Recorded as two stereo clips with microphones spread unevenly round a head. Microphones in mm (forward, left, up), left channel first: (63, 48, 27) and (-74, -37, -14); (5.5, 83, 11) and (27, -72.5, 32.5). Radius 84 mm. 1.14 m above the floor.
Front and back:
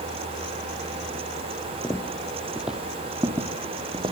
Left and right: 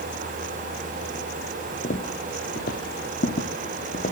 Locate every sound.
1.8 s footsteps: 80° left, 1.4 m; by 4.1 s 140° left, 1.8 m